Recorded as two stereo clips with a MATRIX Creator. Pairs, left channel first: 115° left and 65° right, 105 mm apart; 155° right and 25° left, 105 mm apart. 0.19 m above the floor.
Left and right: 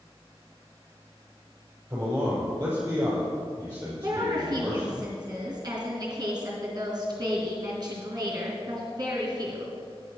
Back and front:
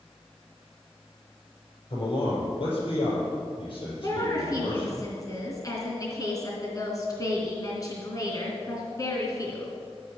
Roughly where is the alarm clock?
I don't hear an alarm clock.